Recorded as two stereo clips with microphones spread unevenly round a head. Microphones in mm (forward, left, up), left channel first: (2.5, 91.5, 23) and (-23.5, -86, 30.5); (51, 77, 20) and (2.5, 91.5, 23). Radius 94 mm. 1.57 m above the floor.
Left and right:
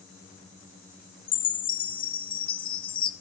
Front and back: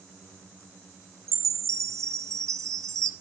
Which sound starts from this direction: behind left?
A chime, at 1.3 s.